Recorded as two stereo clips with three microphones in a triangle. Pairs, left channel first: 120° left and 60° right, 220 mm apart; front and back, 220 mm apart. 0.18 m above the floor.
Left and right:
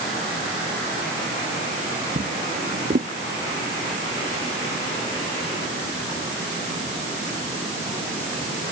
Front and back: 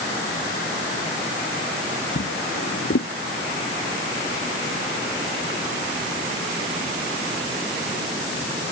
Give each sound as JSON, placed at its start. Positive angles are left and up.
{"t": 2.1, "sound": "a drawer", "azimuth_deg": -10}